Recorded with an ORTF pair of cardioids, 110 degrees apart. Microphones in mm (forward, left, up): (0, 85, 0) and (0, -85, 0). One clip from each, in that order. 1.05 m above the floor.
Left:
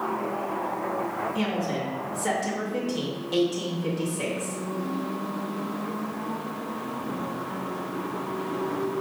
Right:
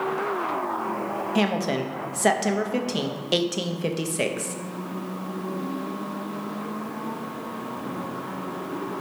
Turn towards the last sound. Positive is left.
turn(degrees=-55)